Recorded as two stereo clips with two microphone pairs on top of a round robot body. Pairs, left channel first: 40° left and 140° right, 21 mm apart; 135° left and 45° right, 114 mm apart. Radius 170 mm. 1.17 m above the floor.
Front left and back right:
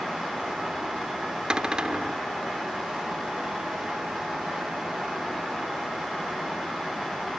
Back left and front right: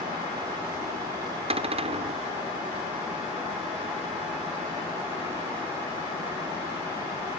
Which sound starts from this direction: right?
A cupboard door, at 1.5 s.